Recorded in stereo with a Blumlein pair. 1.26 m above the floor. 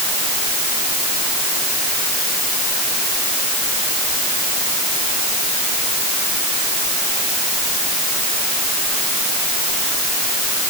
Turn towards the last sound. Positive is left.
No sound to turn to.